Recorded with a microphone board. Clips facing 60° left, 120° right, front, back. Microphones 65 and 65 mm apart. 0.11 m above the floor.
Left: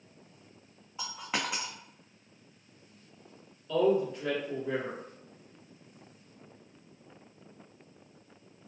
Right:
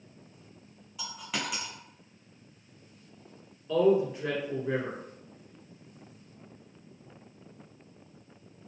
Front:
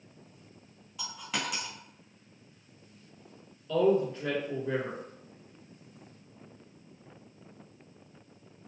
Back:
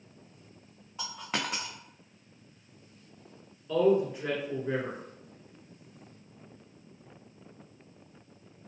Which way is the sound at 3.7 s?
140° right.